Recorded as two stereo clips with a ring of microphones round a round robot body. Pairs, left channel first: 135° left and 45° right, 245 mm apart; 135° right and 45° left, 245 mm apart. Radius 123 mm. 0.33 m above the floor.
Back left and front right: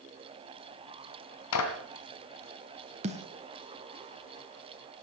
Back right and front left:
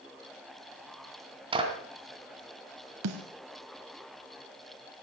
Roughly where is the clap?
Behind left.